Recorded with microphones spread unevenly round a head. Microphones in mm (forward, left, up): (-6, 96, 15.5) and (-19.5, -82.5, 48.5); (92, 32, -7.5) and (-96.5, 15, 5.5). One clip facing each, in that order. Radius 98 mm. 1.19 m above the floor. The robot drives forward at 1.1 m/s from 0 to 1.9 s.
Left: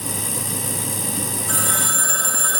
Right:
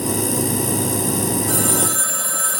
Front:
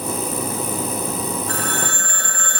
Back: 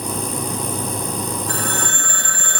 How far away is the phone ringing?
About 5 m.